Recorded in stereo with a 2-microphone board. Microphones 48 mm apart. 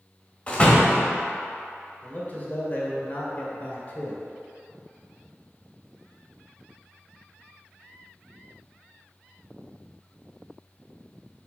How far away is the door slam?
About 1.2 m.